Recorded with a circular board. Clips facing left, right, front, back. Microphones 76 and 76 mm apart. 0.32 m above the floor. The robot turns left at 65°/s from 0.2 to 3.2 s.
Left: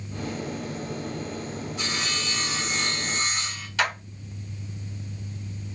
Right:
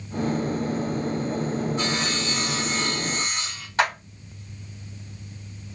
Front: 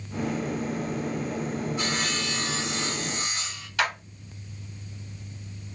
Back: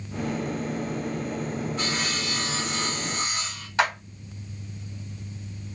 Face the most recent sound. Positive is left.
turn(degrees=-135)